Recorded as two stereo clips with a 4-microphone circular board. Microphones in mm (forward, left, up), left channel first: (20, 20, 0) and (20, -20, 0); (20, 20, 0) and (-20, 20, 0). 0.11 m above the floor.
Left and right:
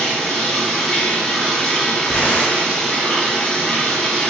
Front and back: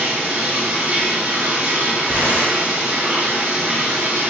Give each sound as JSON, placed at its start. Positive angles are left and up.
{"t": 0.0, "sound": "running water", "azimuth_deg": 155, "distance_m": 1.1}
{"t": 2.0, "sound": "tearing paper", "azimuth_deg": 40, "distance_m": 0.9}